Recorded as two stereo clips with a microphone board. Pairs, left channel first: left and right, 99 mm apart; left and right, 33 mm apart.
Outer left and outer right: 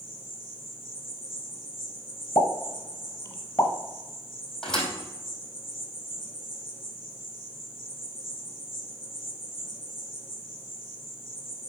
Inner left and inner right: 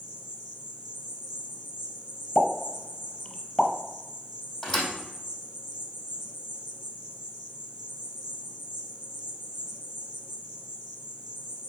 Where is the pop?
25° left (ahead or behind), 1.2 m.